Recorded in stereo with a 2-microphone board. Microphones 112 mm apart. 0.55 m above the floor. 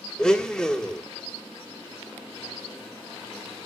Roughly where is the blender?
Centre.